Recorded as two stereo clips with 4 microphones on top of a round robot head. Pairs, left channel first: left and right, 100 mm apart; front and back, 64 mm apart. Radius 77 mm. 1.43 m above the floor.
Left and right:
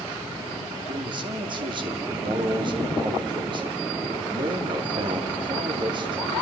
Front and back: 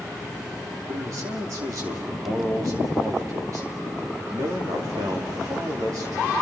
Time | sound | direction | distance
0.9 | a man speaking | 130° right | 3 m